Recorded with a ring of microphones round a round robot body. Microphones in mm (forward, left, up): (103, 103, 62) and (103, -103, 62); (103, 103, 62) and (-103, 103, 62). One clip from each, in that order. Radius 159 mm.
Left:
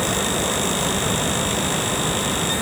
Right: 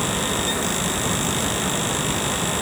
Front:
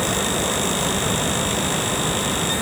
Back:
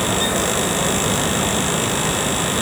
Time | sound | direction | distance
0.0 | a helicopter | 105° left | ?